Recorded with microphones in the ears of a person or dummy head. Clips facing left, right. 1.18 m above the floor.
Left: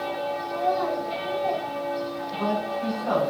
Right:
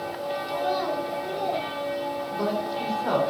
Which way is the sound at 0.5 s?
65° right (ahead or behind).